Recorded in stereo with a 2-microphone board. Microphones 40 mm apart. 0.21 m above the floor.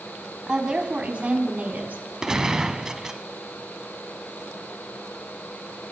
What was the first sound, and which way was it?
A woman speaking, 20° right (ahead or behind).